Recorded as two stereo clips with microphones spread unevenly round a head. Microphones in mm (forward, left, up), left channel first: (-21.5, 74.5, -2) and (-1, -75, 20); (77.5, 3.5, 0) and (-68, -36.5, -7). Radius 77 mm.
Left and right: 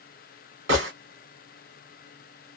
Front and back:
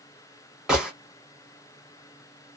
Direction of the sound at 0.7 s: 80° right.